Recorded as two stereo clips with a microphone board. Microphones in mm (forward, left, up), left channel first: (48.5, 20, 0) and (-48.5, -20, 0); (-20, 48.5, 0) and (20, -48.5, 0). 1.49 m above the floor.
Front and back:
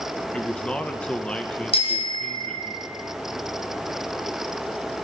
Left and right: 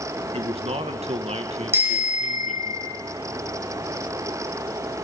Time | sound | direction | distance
0.3 | a man speaking | 60° right | 1.9 m
1.7 | a bicycle bell | straight ahead | 5.5 m